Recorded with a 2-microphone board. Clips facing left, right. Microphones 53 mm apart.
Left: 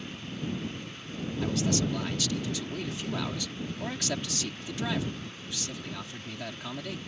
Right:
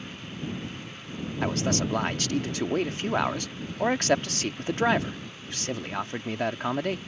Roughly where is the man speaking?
Right.